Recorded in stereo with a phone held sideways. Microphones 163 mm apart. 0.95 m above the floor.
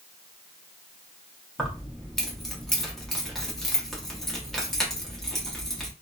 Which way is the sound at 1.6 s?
Centre (ahead or behind).